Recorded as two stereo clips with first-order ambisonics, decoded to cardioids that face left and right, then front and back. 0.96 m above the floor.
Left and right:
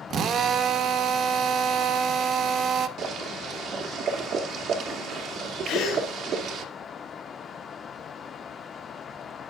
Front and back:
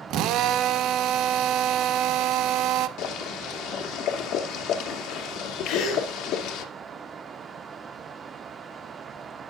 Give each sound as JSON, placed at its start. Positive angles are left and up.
{"t": 0.1, "sound": "a drill", "azimuth_deg": -145, "distance_m": 1.1}
{"t": 3.0, "sound": "boiling", "azimuth_deg": -40, "distance_m": 2.0}
{"t": 5.7, "sound": "a gasp", "azimuth_deg": 30, "distance_m": 7.5}